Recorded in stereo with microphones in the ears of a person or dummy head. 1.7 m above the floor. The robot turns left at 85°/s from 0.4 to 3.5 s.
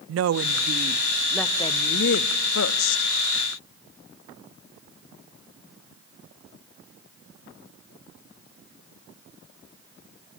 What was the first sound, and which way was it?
A woman speaking, 95° right.